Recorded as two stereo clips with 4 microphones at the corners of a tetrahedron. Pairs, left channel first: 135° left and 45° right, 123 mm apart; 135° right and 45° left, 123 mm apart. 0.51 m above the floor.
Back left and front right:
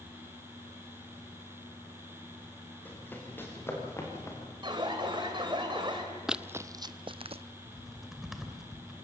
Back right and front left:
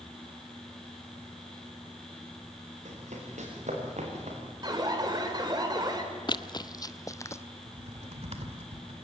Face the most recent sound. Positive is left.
turn(degrees=40)